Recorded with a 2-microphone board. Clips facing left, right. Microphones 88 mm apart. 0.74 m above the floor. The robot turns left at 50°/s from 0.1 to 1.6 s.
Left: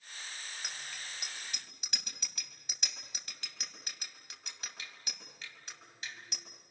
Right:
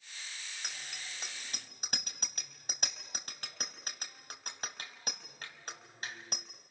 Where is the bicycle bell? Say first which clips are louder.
Right 1 dB; centre (ahead or behind), 3.5 m; by 6.5 s 45° right (ahead or behind), 3.5 m.